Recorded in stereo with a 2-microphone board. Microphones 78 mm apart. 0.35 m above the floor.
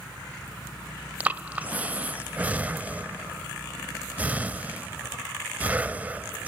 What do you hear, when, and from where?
1.2 s breathing: 20° right (ahead or behind), 0.7 m